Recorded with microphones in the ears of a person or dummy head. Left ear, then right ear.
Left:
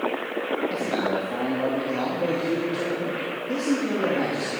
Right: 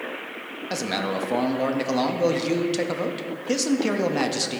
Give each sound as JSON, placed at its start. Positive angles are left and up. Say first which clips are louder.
{"t": 0.7, "sound": "a man speaking", "louder": "left 1 dB", "side_deg": -60, "distance_m": 0.5}